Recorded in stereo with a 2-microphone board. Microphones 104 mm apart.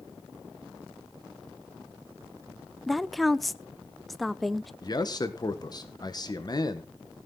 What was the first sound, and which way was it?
A woman speaking, centre (ahead or behind).